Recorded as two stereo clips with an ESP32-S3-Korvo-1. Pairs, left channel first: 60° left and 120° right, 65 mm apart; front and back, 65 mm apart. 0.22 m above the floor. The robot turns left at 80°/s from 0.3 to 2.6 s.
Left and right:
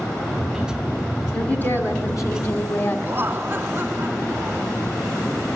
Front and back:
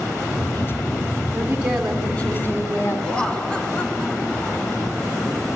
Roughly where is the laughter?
Right.